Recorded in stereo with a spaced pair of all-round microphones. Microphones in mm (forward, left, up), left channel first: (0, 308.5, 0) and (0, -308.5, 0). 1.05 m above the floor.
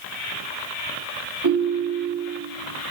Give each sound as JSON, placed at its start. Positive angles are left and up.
{"t": 1.4, "sound": "a ringtone", "side_deg": -30, "distance_m": 1.6}